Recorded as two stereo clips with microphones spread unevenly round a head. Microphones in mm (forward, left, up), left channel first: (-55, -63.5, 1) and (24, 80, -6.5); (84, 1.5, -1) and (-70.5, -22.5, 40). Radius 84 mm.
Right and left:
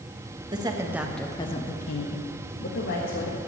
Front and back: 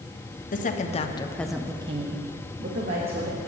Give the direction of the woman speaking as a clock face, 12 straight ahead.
12 o'clock.